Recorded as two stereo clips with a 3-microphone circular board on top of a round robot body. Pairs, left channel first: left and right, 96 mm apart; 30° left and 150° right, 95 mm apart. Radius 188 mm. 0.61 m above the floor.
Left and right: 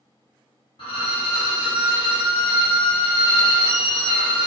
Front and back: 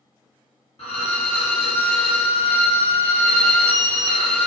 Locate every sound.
0.8 s a violin: 50° left, 0.9 m